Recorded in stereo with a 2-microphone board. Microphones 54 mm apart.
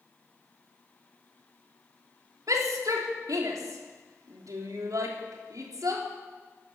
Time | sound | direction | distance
2.5 | a shout | 80° right | 3 m